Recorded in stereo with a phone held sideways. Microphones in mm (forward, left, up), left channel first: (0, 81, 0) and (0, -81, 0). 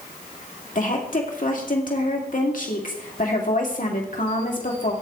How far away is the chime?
I don't hear a chime.